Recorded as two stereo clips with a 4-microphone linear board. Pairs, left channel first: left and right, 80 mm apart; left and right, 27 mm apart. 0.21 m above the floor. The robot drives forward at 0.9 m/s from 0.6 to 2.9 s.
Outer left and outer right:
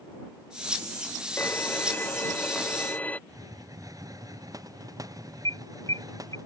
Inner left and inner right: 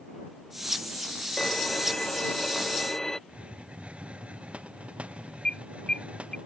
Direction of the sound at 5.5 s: 45° left (ahead or behind).